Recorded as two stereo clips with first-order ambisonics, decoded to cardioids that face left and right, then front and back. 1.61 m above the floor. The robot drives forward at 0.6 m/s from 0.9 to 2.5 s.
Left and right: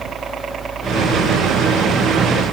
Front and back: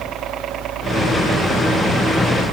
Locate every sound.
0.0 s a helicopter: 140° right